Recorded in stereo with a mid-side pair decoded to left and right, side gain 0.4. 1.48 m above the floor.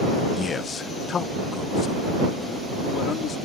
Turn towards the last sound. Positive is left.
turn(degrees=60)